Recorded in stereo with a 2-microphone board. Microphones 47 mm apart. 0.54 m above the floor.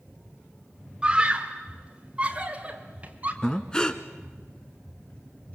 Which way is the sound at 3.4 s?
15° left (ahead or behind).